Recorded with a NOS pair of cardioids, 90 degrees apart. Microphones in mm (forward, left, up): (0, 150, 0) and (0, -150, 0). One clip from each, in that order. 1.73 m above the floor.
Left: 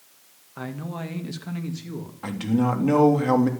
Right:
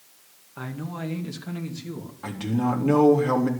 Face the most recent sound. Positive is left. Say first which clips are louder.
# left 2 dB
turn(degrees=20)